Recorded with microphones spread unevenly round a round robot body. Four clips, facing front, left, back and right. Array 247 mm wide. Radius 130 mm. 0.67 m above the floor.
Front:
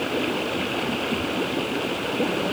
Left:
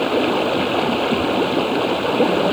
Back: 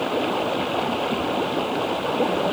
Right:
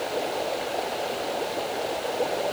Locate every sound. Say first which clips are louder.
0.0 s running water: left 10 dB, back 2 dB; 90° left